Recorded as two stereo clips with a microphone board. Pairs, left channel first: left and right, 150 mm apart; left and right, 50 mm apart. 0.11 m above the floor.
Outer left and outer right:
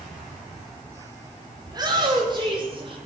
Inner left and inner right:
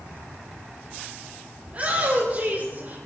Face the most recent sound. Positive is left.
turn(degrees=-35)  # may be behind; listen again after turning